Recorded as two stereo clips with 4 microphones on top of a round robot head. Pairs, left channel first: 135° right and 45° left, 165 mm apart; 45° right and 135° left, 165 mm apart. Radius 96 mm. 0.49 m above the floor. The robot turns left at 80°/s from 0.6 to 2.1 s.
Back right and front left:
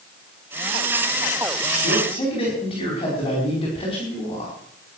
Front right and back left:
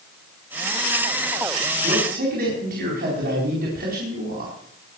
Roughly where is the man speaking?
Behind.